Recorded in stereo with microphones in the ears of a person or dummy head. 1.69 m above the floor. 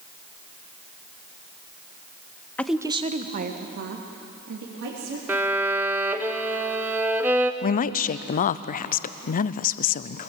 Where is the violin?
15° right (ahead or behind), 0.9 m.